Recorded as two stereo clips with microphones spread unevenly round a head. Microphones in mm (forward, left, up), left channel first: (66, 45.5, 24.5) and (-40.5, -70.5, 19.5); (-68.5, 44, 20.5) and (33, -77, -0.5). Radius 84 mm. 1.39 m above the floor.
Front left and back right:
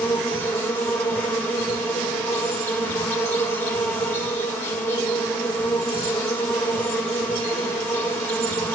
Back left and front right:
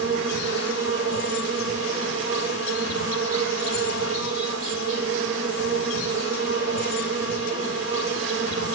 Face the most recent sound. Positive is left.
turn(degrees=-30)